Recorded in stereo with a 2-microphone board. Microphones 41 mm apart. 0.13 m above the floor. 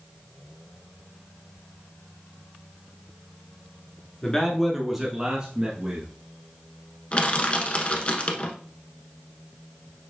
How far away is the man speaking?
About 1.4 m.